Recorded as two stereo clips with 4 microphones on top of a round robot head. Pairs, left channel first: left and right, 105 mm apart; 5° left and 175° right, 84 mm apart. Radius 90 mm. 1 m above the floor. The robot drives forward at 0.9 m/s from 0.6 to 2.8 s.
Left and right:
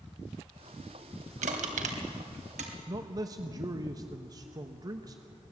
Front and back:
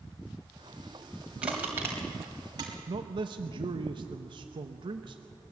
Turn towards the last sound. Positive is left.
turn(degrees=-145)